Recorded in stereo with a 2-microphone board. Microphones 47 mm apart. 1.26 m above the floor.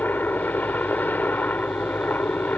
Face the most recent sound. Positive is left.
turn(degrees=40)  # may be behind; listen again after turning